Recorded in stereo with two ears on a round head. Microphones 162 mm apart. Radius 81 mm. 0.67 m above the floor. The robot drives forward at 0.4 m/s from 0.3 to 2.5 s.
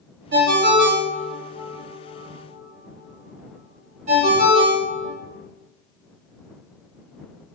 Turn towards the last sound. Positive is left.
turn(degrees=-40)  # may be behind; listen again after turning